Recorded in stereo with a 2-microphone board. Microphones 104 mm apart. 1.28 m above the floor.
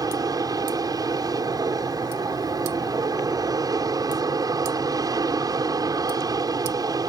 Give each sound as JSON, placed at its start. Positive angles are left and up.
{"t": 0.0, "sound": "an aircraft", "side_deg": -35}